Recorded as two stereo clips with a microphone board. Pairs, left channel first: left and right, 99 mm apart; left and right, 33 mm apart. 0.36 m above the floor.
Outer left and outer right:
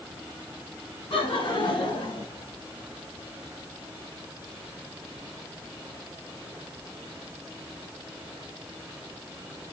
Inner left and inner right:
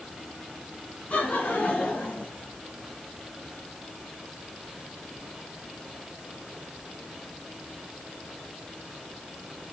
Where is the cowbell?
I don't hear a cowbell.